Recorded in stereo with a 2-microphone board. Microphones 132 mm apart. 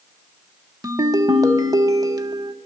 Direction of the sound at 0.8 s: 30° right (ahead or behind).